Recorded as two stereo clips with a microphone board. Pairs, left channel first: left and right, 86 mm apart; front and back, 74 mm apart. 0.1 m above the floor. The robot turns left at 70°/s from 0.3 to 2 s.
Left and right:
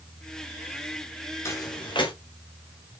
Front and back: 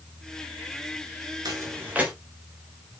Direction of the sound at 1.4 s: 145° left.